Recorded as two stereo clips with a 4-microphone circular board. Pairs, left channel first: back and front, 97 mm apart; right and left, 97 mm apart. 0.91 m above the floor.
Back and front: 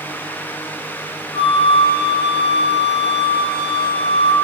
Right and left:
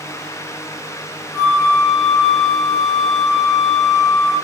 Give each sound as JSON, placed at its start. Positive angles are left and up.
{"t": 1.3, "sound": "a flute", "azimuth_deg": 175, "distance_m": 0.8}